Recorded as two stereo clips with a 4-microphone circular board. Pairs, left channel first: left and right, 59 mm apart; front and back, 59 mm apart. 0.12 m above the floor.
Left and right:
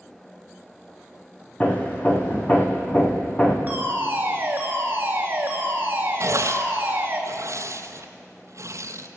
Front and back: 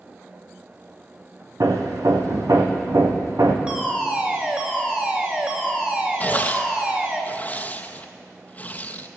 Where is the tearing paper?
60° right, 1.1 m.